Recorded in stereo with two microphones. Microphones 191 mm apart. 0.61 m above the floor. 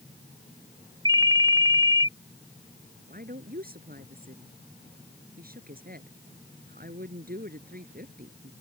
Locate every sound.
1.1 s a ringtone: 25° right (ahead or behind)
3.1 s a woman speaking: 50° right (ahead or behind)